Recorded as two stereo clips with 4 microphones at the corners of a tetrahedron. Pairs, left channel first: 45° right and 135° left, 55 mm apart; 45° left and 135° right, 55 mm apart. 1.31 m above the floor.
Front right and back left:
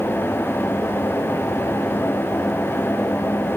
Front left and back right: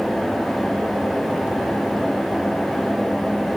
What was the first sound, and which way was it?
Only background noise.